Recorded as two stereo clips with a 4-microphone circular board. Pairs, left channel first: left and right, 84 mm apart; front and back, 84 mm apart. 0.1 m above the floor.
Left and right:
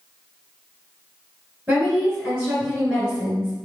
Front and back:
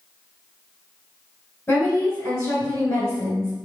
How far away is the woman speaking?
About 1.5 m.